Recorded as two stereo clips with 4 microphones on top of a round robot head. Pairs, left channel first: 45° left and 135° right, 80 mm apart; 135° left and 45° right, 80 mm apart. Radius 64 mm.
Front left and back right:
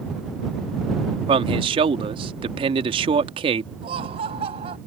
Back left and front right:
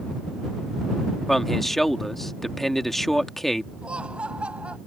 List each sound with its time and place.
1.3 s a man speaking: 140° right
3.8 s laughter: 125° right